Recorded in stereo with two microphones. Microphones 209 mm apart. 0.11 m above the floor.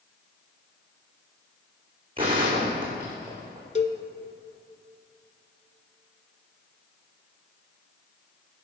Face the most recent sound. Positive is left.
turn(degrees=35)  # may be behind; listen again after turning